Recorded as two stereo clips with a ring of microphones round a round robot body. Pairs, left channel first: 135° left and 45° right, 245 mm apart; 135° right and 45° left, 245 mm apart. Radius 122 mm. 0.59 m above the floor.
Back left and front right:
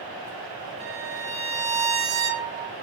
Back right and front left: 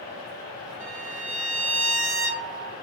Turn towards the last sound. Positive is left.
turn(degrees=5)